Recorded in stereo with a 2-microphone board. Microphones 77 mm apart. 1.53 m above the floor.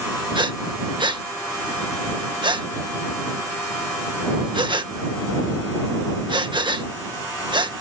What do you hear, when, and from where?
0.3 s breathing: 90° right